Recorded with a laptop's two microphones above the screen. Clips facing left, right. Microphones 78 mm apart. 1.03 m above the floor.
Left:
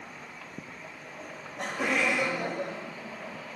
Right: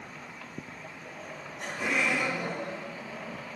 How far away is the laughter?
About 1.6 m.